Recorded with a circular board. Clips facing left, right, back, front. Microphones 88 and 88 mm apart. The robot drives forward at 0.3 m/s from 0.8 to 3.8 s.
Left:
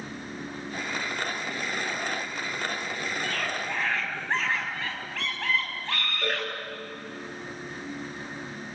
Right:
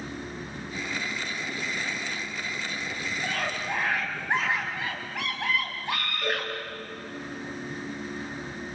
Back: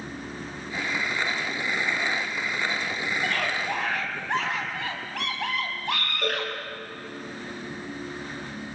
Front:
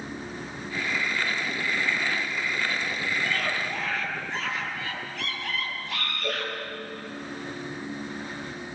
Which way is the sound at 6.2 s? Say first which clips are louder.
Even, back 3 dB; 160° left.